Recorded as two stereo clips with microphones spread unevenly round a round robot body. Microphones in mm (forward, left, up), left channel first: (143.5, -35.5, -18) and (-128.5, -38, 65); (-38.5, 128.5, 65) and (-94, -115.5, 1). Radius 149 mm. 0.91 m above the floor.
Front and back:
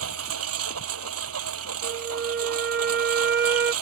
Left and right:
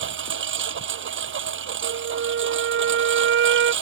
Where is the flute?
120° right.